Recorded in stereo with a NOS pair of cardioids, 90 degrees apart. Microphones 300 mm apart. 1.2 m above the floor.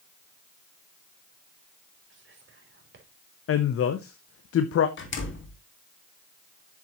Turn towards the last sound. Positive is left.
turn(degrees=40)